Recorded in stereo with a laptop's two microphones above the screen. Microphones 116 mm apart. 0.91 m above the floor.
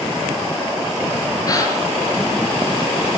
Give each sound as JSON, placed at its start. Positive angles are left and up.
{"t": 1.5, "sound": "a gasp", "side_deg": 30, "distance_m": 6.0}